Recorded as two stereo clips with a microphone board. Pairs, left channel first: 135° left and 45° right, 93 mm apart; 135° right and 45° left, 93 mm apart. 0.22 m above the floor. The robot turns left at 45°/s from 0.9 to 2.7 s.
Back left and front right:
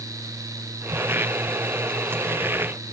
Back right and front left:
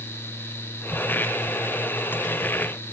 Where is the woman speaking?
I don't hear a woman speaking.